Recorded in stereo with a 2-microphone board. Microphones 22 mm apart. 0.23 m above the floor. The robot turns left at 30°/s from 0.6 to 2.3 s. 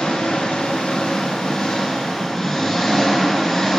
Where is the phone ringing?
I don't hear a phone ringing.